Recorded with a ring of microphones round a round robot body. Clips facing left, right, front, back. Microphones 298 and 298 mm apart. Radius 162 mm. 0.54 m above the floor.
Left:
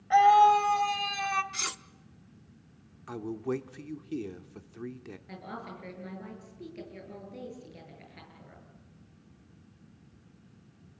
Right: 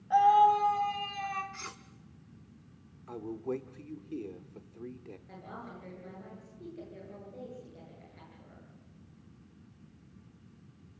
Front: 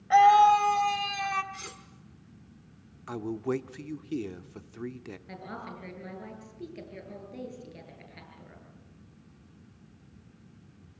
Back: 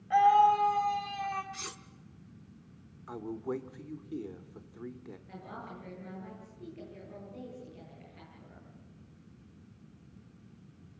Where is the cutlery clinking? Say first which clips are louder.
Left 4 dB, front 1 dB; 110° left, 0.8 m.